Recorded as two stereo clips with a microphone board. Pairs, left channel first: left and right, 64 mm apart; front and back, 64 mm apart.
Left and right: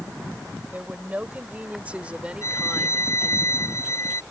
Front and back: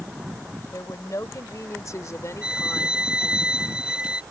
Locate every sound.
0.7 s a woman speaking: 30° right; by 3.4 s 10° right
2.4 s a violin: 105° left